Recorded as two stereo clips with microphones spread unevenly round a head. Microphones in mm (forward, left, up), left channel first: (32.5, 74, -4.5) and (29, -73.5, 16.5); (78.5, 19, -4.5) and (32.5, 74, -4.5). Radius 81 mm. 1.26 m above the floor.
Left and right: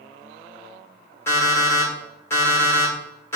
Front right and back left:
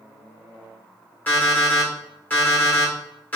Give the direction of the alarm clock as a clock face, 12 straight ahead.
12 o'clock.